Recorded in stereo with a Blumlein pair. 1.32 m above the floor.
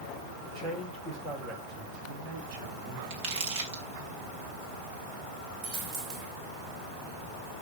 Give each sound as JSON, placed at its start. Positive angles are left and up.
{"t": 0.4, "sound": "a man speaking", "azimuth_deg": -35, "distance_m": 5.5}
{"t": 3.1, "sound": "crumpling", "azimuth_deg": -45, "distance_m": 3.5}
{"t": 5.6, "sound": "a dropped coin", "azimuth_deg": -35, "distance_m": 3.0}